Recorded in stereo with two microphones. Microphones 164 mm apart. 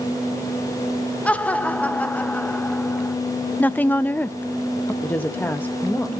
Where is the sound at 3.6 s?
10° left (ahead or behind), 0.5 m.